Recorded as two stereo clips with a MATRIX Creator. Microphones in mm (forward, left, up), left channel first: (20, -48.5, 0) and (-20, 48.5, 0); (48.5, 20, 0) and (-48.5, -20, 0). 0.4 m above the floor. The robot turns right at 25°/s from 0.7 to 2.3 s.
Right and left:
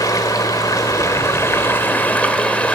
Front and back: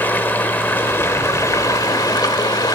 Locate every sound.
0.0 s running water: 40° right, 1.5 m; by 2.8 s straight ahead, 1.5 m